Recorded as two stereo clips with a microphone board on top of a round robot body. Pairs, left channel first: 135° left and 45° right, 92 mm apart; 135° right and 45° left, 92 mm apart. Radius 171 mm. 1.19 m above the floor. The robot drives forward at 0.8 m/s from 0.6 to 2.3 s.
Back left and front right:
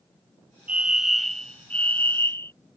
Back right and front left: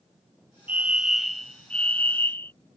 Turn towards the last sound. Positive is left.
turn(degrees=175)